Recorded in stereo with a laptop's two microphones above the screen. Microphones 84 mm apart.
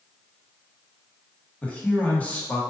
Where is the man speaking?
15° left (ahead or behind), 1.4 m.